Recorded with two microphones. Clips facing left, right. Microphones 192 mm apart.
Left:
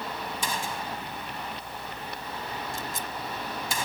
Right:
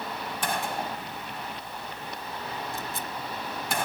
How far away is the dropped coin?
No dropped coin in this recording.